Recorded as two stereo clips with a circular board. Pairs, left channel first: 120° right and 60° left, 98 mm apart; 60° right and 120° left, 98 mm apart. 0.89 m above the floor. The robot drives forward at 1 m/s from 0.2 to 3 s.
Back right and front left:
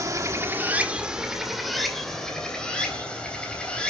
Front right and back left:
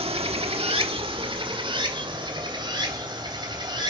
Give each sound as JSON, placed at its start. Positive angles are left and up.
{"t": 0.0, "sound": "running water", "azimuth_deg": 115, "distance_m": 1.3}